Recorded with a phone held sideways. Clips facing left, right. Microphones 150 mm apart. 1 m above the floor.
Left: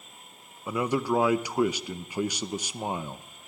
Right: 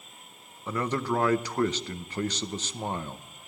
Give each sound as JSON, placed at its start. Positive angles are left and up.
{"t": 0.7, "sound": "a man speaking", "side_deg": 10, "distance_m": 0.7}